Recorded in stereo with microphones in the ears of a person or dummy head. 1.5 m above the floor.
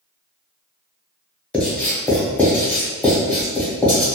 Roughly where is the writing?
Centre.